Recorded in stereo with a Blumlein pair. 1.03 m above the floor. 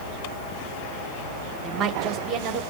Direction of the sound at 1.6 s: 25° right.